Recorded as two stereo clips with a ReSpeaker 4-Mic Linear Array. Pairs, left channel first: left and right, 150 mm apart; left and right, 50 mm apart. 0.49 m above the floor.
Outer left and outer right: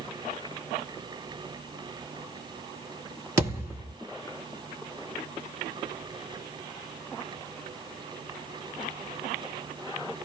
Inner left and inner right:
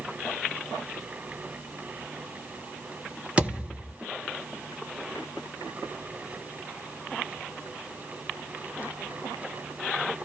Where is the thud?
20° right (ahead or behind), 1.5 m.